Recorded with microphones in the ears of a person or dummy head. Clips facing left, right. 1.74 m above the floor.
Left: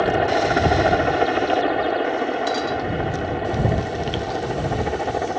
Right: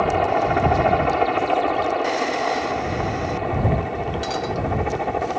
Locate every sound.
0.0 s a helicopter: 15° left (ahead or behind); by 5.4 s 10° left (ahead or behind)